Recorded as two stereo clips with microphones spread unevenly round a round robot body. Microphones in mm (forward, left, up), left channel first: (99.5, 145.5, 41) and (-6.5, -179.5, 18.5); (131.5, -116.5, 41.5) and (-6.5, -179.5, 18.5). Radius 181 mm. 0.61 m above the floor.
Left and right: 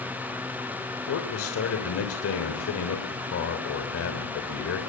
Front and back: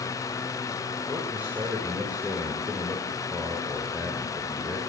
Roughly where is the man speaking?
Behind left.